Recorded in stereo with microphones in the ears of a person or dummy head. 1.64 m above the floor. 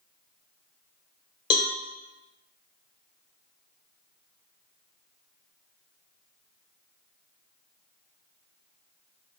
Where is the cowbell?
20° left (ahead or behind), 0.9 m.